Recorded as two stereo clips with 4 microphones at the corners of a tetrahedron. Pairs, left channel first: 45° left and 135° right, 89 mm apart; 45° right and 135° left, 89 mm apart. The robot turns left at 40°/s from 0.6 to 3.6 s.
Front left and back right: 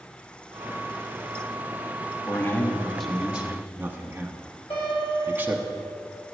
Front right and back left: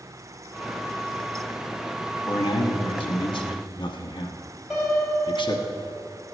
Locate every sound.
2.3 s a man speaking: 10° right, 1.1 m; by 5.6 s 65° right, 1.1 m
4.7 s a piano: 50° left, 4 m